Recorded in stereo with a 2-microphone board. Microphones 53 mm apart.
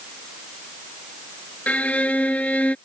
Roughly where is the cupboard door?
I don't hear a cupboard door.